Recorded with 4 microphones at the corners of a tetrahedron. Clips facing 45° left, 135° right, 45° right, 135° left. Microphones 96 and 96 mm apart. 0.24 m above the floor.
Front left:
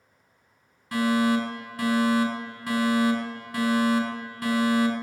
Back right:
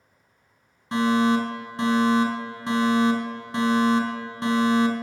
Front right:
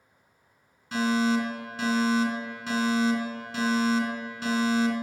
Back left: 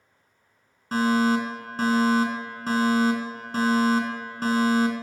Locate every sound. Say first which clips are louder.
0.9 s a fire alarm: back right 2 dB, back left 3 dB; 165° left, 3.5 m